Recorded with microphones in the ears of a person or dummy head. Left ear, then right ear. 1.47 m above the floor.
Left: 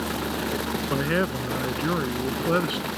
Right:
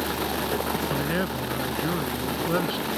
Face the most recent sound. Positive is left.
turn(degrees=25)  # may be behind; listen again after turning